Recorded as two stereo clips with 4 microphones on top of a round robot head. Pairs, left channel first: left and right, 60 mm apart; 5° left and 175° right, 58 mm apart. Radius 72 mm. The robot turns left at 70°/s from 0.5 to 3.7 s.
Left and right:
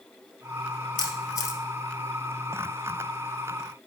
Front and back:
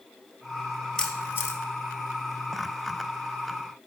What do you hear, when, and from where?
1.0 s a camera shutter: 85° left, 2 m; by 1.6 s 40° left, 2 m